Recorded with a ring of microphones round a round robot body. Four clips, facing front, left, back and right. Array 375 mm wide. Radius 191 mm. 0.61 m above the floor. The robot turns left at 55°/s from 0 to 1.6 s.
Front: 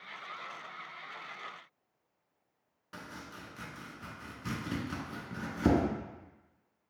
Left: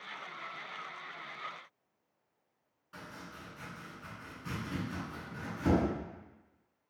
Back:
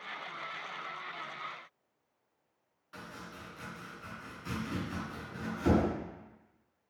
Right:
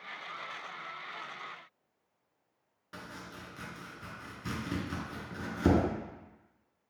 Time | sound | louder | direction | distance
2.9 | chopping | right 2 dB, even | 50° right | 0.7 m